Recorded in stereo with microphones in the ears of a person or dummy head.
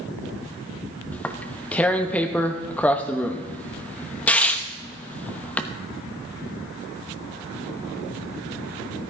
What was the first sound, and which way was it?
Tearing paper, 10° left (ahead or behind).